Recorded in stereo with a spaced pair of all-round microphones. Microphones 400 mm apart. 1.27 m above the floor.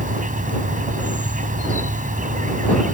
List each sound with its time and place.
0.0 s an insect: 20° right (ahead or behind)